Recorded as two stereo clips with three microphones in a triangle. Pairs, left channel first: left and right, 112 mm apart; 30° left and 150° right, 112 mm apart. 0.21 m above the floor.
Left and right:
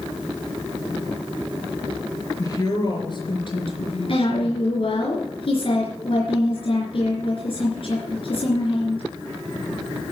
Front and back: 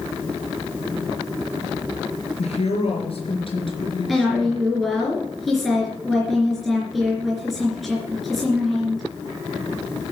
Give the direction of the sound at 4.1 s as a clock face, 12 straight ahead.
8 o'clock.